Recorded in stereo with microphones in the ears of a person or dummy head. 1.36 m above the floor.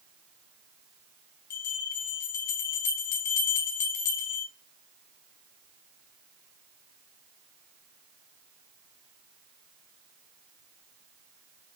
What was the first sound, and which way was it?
A bell, 45° left (ahead or behind).